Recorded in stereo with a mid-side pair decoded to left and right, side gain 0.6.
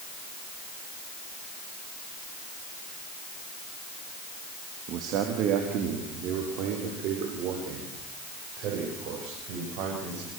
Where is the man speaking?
60° right, 3 m; by 10.3 s 70° right, 10.5 m.